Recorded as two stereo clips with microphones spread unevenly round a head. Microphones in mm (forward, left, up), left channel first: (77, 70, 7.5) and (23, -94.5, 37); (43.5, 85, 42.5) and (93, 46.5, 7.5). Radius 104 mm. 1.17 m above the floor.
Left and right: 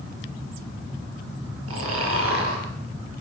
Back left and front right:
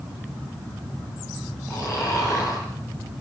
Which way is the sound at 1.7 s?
130° right.